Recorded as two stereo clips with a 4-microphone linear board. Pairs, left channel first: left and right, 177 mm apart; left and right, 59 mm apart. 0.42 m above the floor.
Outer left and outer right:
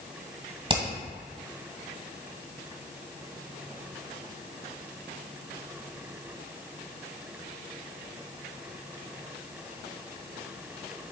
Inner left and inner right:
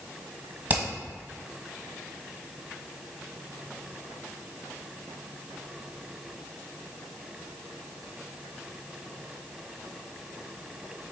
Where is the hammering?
30° right (ahead or behind), 1.5 m.